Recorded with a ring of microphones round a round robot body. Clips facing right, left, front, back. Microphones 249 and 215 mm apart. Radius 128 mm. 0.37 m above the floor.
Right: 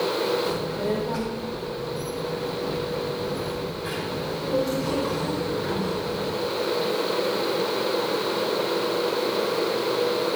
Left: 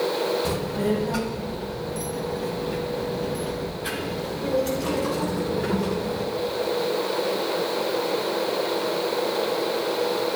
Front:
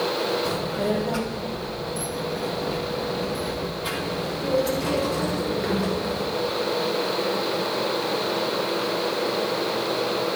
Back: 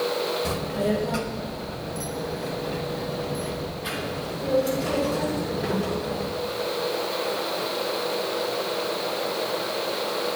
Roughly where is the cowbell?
No cowbell in this recording.